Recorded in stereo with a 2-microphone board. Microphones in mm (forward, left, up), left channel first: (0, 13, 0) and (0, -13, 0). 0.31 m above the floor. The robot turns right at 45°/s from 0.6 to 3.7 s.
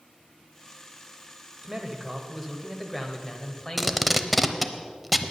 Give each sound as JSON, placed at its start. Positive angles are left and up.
{"t": 1.6, "sound": "a man speaking", "azimuth_deg": -45, "distance_m": 1.3}
{"t": 3.8, "sound": "tape being pulled", "side_deg": 0, "distance_m": 0.7}